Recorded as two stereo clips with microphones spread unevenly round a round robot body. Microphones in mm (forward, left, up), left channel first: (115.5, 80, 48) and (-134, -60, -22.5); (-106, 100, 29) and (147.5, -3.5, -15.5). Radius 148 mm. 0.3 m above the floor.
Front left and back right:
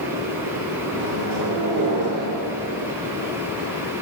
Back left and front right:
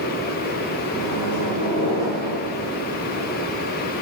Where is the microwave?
130° right, 3 m.